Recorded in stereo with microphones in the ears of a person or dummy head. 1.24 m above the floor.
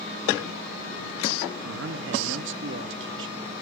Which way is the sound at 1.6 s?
60° right (ahead or behind).